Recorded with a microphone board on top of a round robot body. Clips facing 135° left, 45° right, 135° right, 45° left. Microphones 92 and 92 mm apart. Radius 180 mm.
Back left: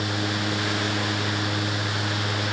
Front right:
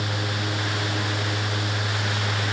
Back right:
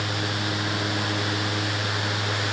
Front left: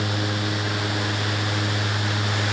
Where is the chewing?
No chewing in this recording.